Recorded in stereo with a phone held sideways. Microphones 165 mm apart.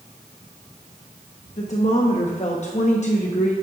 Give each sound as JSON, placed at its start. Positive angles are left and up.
{"t": 1.6, "sound": "a woman speaking", "side_deg": 45, "distance_m": 0.9}